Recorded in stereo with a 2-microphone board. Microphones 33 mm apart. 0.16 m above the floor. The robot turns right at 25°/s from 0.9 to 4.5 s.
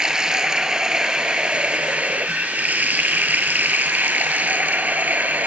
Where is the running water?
160° right, 0.9 m; by 5.5 s 70° right, 0.9 m.